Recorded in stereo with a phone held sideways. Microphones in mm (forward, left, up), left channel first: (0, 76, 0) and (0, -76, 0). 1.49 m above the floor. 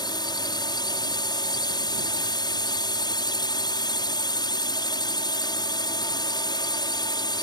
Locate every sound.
0.0 s a drone: 30° left (ahead or behind)